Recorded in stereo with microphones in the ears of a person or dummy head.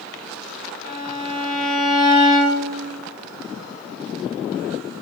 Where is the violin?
65° left (ahead or behind), 1.4 m.